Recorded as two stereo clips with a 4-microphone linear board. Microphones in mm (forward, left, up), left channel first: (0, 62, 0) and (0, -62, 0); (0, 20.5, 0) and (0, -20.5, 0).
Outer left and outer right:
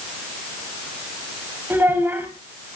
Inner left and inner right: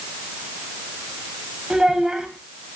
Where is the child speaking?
15° right (ahead or behind), 4 m.